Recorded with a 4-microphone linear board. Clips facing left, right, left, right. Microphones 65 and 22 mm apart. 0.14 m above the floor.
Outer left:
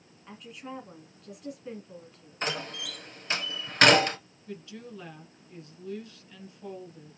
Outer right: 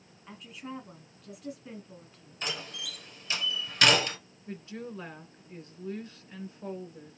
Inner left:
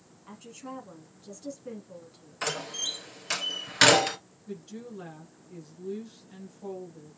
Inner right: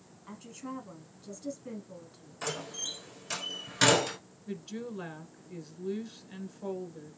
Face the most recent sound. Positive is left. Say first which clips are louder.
# outer right 2 dB, inner right 2 dB
turn(degrees=-30)  # may be behind; listen again after turning